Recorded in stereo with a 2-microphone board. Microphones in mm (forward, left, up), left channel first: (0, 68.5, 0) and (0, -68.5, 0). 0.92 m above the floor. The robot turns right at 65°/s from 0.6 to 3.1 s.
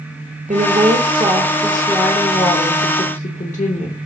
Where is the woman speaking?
85° right, 0.6 m; by 4.0 s 80° left, 0.6 m.